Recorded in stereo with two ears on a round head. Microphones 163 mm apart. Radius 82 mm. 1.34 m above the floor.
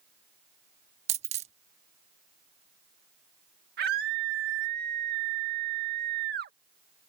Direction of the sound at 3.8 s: 60° right (ahead or behind).